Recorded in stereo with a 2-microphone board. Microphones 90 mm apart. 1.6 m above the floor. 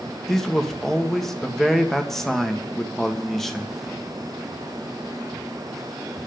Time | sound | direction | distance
0.3 | a man speaking | 5° left (ahead or behind) | 1.8 m